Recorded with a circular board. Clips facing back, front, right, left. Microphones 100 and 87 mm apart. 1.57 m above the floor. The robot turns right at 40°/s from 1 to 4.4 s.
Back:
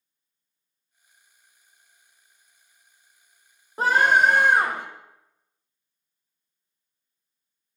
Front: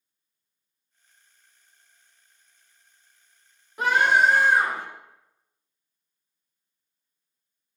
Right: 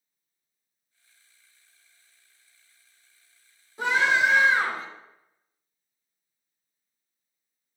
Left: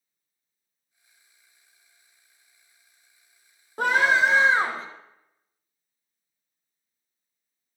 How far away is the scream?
About 1.3 m.